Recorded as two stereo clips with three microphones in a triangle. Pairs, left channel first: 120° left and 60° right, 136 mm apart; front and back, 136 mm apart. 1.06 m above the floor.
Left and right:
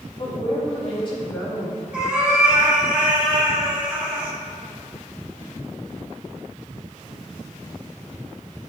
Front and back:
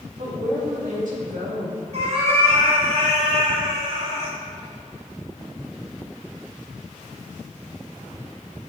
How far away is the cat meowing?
About 2 m.